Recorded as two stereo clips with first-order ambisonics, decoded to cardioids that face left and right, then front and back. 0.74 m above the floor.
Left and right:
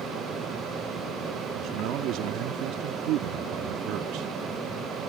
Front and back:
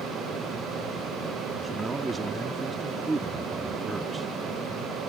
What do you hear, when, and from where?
1.6 s a man speaking: 105° right